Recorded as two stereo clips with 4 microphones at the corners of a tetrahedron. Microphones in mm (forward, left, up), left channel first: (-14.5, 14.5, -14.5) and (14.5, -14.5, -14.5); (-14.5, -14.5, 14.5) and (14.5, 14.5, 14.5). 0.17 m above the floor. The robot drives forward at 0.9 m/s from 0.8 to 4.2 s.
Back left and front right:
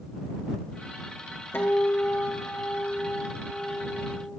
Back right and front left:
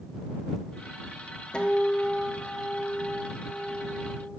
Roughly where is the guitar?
Behind.